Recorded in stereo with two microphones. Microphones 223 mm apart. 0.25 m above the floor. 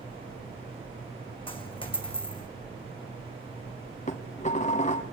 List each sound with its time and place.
1.5 s a dropped coin: 25° left (ahead or behind), 2.5 m
4.1 s dishes clattering: 35° left (ahead or behind), 1.3 m